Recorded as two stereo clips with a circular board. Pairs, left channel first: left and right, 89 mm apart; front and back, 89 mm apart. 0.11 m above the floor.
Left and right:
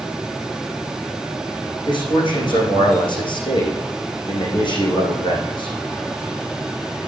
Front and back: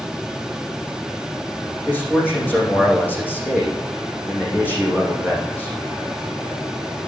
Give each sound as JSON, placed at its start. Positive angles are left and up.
{"t": 1.9, "sound": "a man speaking", "azimuth_deg": 70, "distance_m": 6.0}